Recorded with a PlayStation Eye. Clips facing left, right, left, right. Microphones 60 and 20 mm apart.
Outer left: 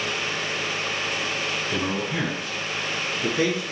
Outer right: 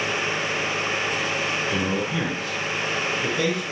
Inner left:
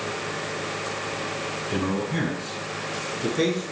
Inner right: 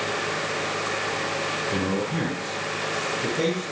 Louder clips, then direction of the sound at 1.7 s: Outer right 2 dB, inner right 1 dB; 10° left (ahead or behind).